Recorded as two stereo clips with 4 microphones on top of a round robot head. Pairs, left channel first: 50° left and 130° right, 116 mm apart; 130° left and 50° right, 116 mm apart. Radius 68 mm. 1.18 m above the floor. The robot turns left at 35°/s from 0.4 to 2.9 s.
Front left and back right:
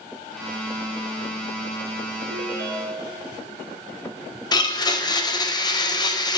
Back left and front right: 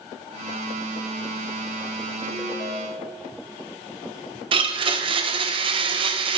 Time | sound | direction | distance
2.3 | a ringtone | 105° right | 1.6 m
4.5 | a blender | 5° right | 0.9 m